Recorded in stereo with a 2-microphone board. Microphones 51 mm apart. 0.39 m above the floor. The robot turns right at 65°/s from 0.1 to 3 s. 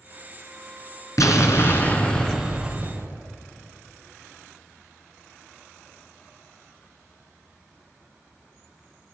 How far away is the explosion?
About 2 m.